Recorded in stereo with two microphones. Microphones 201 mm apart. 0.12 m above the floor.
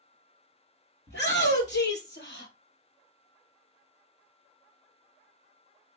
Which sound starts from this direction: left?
A shout, at 1.1 s.